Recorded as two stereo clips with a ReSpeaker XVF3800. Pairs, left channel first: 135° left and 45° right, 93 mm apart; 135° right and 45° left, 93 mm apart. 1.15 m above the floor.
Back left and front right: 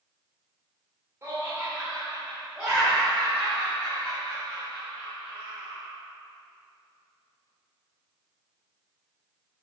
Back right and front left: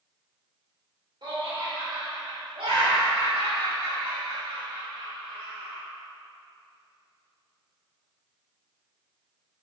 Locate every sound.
1.2 s laughter: 15° left, 3 m; by 5.9 s 60° left, 6 m